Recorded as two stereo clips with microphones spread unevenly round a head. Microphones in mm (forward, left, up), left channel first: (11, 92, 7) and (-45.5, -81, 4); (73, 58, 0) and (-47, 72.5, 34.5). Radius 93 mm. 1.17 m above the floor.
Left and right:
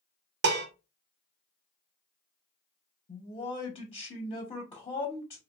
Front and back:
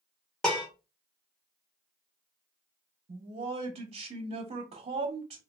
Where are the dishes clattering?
105° right, 0.5 m.